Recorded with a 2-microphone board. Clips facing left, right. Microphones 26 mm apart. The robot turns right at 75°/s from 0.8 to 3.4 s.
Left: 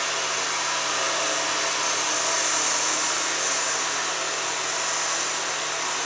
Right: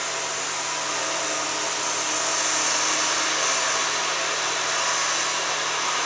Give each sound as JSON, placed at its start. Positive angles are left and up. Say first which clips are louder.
{"t": 0.0, "sound": "running water", "louder": "left 2 dB", "azimuth_deg": 55, "distance_m": 1.8}